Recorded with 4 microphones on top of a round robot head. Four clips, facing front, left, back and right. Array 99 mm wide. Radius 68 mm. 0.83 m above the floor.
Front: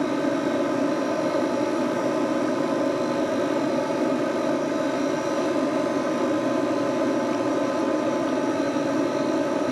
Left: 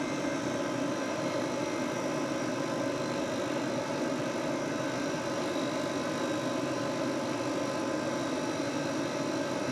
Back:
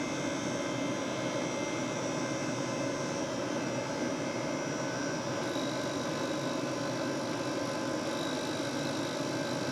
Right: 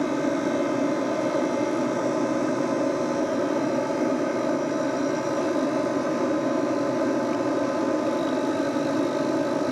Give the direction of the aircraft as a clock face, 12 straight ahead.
1 o'clock.